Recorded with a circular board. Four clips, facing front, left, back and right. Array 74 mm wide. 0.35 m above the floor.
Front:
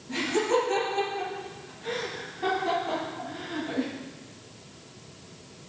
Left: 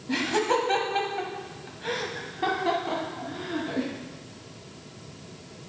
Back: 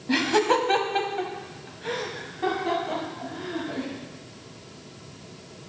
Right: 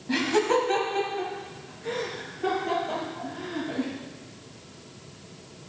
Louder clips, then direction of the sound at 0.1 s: Right 2 dB, back 4 dB; 175° right.